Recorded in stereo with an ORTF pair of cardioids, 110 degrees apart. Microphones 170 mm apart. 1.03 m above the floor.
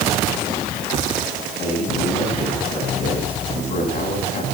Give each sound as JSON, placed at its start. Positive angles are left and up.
{"t": 1.6, "sound": "a man speaking", "azimuth_deg": 45, "distance_m": 8.0}